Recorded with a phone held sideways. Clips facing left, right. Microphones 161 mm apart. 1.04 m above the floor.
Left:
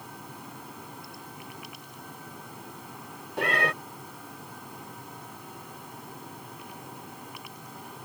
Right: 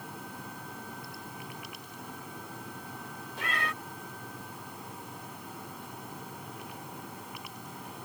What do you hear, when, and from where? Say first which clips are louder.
3.4 s a cat meowing: left 9 dB; 60° left (ahead or behind)